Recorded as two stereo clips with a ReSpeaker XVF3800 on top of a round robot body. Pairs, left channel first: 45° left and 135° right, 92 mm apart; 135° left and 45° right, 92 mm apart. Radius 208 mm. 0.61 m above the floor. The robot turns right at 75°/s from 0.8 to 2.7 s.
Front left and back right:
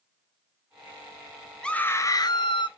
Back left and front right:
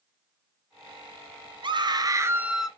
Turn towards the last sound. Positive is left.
turn(degrees=45)